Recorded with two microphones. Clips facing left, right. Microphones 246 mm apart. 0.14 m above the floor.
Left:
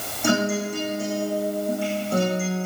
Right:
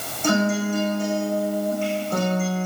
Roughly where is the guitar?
Centre.